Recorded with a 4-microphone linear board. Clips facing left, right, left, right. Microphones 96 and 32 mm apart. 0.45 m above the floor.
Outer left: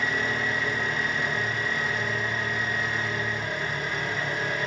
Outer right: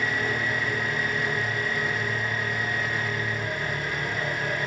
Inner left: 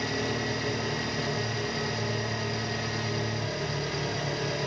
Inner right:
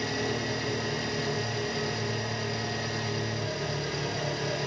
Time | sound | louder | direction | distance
0.0 | an engine running | even, even | centre (ahead or behind) | 1.1 m